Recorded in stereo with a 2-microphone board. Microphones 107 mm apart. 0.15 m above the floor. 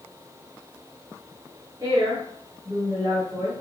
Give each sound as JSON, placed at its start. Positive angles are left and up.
{"t": 1.8, "sound": "a woman speaking", "side_deg": -35, "distance_m": 1.5}